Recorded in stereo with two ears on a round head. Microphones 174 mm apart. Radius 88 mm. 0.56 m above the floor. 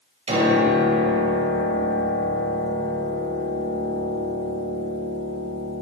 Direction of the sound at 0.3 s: 30° right (ahead or behind).